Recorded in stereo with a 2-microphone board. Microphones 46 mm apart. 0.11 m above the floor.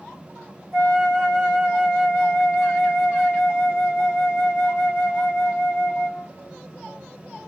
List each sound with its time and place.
0.7 s a flute: 10° right (ahead or behind), 2.5 m